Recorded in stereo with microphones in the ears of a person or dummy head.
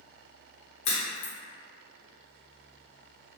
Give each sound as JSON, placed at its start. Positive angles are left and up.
{"t": 0.8, "sound": "a crack", "side_deg": 30, "distance_m": 0.9}